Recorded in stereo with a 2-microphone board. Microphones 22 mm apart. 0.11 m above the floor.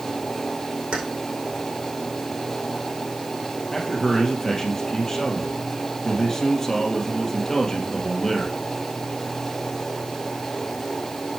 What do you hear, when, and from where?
0.9 s keys jangling: 75° right (ahead or behind), 4 m
3.7 s a man speaking: 25° left (ahead or behind), 3 m